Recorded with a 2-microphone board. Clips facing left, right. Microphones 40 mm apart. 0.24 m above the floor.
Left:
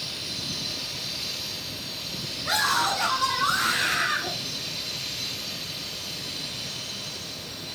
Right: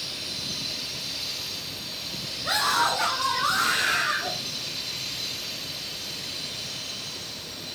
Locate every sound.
2.4 s a scream: 80° right, 9 m; by 4.3 s 75° right (ahead or behind), 11.5 m